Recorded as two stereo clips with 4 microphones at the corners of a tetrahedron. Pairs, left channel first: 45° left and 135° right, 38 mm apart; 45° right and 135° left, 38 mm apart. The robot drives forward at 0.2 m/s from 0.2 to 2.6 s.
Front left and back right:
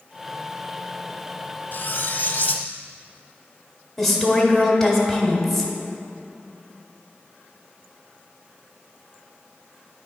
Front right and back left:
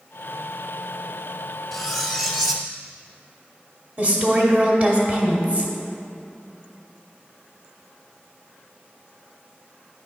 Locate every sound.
1.7 s cutlery clinking: 35° left, 0.9 m; by 2.7 s 45° left, 0.8 m
4.0 s a woman speaking: 125° left, 1.1 m